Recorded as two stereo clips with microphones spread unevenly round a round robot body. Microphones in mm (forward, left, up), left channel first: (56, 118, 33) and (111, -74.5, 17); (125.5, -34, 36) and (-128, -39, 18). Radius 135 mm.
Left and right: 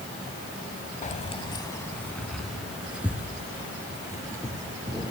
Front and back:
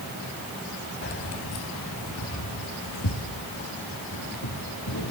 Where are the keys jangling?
55° left, 1.6 m; by 5.1 s straight ahead, 6 m.